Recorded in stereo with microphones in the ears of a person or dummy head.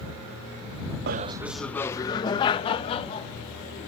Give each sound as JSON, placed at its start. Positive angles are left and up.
{"t": 1.1, "sound": "laughter", "side_deg": -60}